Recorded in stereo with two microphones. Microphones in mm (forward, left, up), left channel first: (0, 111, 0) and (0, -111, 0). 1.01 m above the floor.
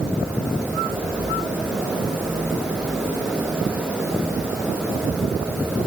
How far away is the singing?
I don't hear singing.